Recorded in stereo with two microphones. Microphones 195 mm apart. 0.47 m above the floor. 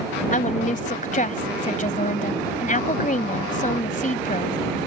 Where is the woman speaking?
40° left (ahead or behind).